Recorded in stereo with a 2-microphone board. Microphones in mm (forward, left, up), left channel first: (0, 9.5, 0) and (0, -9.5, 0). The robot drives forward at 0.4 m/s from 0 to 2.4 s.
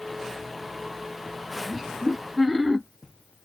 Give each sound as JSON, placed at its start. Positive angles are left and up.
{"t": 1.7, "sound": "laughter", "side_deg": 5, "distance_m": 1.4}